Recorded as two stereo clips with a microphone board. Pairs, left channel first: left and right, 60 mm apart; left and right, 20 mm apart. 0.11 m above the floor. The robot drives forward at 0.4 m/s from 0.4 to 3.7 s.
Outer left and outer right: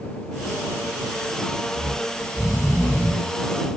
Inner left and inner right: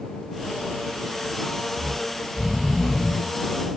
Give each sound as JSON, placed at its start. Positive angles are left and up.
{"t": 1.8, "sound": "snoring", "side_deg": 20, "distance_m": 2.0}